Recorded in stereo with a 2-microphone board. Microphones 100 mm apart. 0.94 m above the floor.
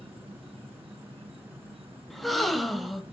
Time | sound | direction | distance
0.0 | an insect | 75° right (ahead or behind) | 2.5 m
2.1 | a gasp | centre (ahead or behind) | 1.1 m